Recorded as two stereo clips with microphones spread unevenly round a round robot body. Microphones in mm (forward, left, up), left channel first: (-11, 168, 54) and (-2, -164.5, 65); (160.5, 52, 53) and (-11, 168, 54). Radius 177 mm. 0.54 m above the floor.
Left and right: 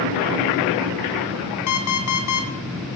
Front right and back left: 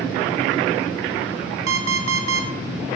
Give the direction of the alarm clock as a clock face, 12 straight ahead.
8 o'clock.